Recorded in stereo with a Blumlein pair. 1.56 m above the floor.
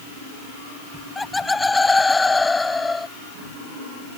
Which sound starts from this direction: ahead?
Laughter, at 0.9 s.